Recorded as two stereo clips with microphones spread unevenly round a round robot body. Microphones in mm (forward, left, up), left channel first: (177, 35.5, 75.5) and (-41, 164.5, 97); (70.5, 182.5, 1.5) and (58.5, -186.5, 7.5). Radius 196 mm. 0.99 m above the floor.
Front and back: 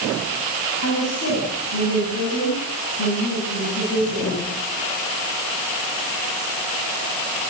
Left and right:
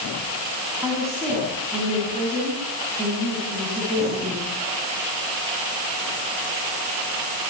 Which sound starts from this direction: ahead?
A woman speaking, at 0.8 s.